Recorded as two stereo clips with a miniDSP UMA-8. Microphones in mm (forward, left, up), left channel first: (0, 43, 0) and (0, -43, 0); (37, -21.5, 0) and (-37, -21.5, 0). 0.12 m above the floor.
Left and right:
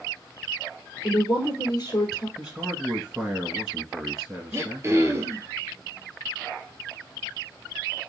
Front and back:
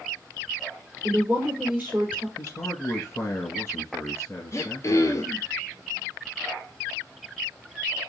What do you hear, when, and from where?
1.0 s a woman speaking: 110° left, 1.8 m
2.4 s a man speaking: 20° right, 1.5 m
4.5 s throat clearing: 40° right, 0.9 m